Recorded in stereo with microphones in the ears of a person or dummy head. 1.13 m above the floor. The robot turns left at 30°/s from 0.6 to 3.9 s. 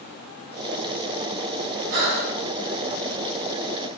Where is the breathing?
65° right (ahead or behind), 4.5 m; by 2.4 s 80° right, 4.5 m.